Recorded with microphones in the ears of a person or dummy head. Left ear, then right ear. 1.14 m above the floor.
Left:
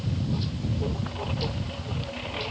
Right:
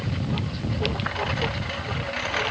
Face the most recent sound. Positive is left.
turn(degrees=-60)  # may be behind; listen again after turning